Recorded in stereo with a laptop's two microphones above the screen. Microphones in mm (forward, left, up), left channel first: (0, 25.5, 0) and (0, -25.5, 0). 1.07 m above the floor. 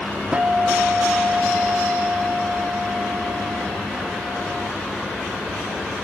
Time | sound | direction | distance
0.3 | a guitar | 30° right (ahead or behind) | ?